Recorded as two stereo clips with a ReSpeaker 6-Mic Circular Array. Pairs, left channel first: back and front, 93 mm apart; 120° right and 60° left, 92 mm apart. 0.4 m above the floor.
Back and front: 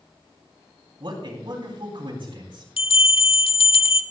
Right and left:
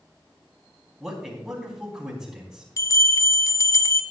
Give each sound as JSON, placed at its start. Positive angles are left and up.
{"t": 1.0, "sound": "a man speaking", "azimuth_deg": -25, "distance_m": 4.0}
{"t": 2.8, "sound": "a bell", "azimuth_deg": -175, "distance_m": 0.7}